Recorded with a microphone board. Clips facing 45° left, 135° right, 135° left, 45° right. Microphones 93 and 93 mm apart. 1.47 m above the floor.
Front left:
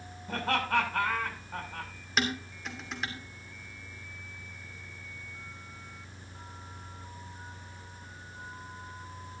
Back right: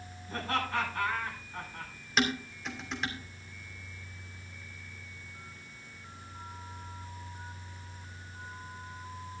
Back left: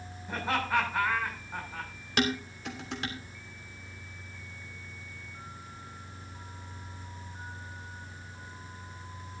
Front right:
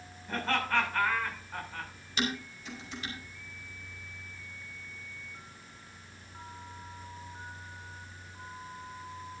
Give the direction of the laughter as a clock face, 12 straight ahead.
10 o'clock.